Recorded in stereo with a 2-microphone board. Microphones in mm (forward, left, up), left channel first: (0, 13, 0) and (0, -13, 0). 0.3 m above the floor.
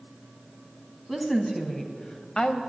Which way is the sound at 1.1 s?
5° left (ahead or behind).